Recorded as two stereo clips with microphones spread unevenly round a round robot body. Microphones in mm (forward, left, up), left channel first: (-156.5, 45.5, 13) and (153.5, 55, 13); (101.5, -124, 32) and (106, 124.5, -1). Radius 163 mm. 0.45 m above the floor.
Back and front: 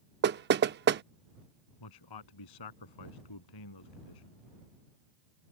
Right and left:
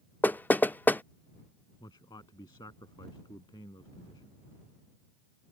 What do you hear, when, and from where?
0.2 s knocking: straight ahead
1.8 s a man speaking: 170° right